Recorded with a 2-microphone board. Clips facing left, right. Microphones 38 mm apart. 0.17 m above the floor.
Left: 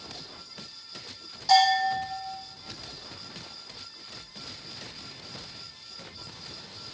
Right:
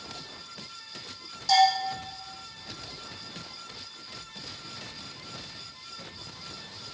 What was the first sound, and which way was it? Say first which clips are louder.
A bell: left 1 dB; 10° left (ahead or behind).